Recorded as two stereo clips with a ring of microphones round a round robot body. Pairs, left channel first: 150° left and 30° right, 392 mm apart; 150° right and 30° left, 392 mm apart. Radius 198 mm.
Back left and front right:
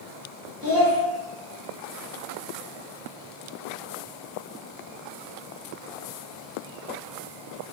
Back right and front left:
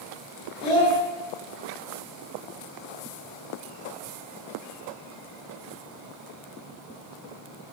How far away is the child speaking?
About 1.7 m.